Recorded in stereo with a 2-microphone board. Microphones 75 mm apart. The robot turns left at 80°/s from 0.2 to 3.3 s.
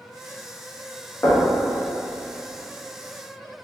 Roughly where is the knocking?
Left.